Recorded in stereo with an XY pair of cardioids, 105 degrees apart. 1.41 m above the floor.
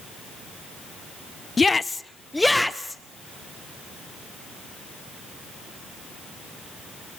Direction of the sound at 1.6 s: 25° left.